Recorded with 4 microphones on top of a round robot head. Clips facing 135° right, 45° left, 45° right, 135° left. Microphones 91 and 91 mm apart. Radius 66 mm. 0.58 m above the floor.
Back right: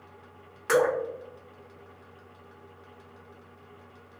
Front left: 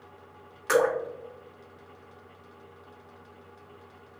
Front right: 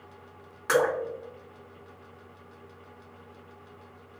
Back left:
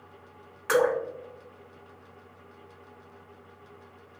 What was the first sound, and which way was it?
Dripping, 105° right.